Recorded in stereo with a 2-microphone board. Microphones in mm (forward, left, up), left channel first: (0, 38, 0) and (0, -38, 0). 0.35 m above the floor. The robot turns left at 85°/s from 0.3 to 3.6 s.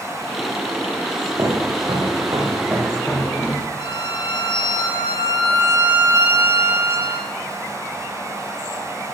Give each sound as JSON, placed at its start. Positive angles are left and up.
{"t": 1.4, "sound": "footsteps", "side_deg": -45, "distance_m": 8.5}
{"t": 3.8, "sound": "a violin", "side_deg": 80, "distance_m": 8.0}